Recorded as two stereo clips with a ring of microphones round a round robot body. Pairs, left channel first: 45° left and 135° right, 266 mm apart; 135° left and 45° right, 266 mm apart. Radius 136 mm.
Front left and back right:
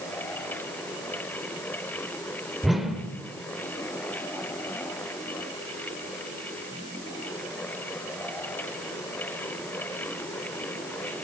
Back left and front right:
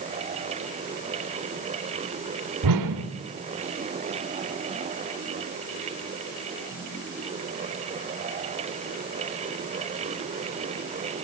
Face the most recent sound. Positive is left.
turn(degrees=-45)